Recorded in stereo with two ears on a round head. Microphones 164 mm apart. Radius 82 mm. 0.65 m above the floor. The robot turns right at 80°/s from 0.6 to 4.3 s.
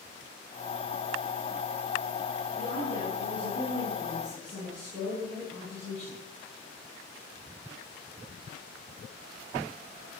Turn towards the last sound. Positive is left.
turn(degrees=10)